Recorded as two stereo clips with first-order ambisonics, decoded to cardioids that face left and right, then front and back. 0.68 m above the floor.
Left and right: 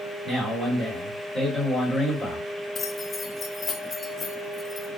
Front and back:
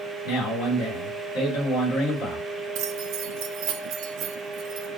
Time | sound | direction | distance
0.2 | a man speaking | 15° right | 1.4 m
2.8 | keys jangling | 160° left | 0.5 m